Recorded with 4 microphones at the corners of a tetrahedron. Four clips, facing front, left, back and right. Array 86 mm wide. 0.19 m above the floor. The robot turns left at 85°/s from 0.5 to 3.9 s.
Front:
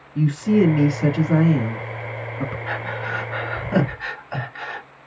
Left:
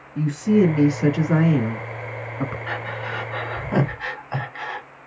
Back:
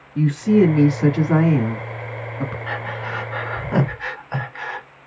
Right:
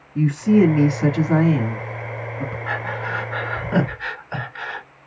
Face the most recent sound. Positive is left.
turn(degrees=140)